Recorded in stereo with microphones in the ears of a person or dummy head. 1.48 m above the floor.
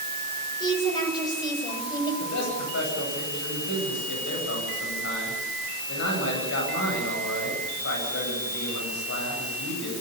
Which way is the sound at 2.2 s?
65° left (ahead or behind).